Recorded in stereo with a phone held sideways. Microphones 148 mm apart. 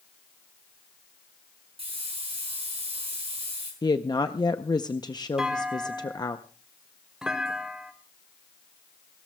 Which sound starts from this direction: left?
A woman speaking, at 3.8 s.